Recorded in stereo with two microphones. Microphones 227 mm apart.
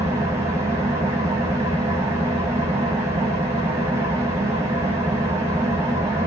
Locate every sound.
0.0 s an engine running: 25° right (ahead or behind), 2 m